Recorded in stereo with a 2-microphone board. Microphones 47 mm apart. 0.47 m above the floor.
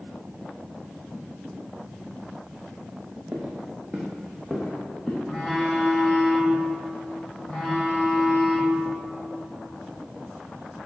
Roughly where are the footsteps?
Right.